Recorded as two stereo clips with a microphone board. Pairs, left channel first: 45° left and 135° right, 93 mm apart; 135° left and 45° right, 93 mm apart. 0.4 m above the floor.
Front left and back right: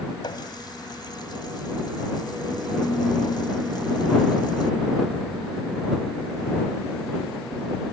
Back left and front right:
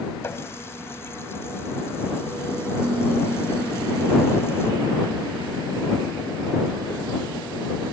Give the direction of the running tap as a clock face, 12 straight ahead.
9 o'clock.